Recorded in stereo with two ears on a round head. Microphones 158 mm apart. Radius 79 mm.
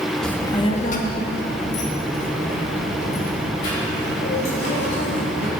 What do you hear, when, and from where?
0.2 s a child speaking: 5° left (ahead or behind), 1.0 m; by 5.5 s 80° left, 6 m